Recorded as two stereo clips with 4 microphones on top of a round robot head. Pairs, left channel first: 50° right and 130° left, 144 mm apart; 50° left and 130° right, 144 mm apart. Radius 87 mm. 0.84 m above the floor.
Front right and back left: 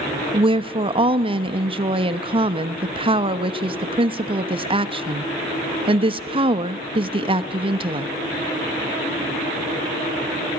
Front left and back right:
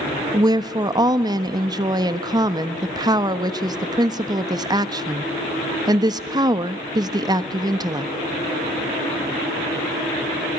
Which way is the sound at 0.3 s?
175° left.